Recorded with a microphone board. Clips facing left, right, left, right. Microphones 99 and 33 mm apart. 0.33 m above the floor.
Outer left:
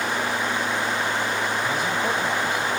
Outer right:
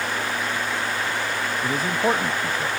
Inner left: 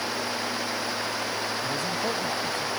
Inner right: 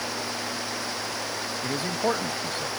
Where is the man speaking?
40° right (ahead or behind).